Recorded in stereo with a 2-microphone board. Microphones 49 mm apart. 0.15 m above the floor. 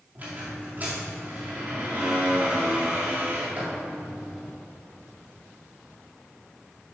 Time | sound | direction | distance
0.1 | a squeak | 35° right (ahead or behind) | 3.5 m